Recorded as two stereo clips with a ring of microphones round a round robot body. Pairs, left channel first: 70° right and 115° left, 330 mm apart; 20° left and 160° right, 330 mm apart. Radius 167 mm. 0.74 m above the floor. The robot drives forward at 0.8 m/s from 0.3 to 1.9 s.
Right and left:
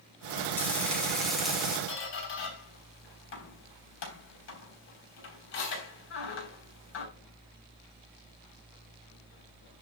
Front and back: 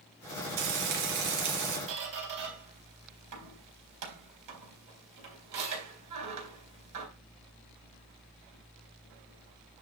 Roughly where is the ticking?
No ticking in this recording.